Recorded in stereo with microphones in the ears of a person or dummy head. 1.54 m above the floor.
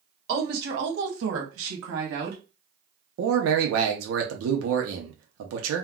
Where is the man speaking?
85° right, 0.6 m.